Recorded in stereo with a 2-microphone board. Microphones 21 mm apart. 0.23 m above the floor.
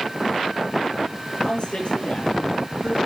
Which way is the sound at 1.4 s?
45° left (ahead or behind).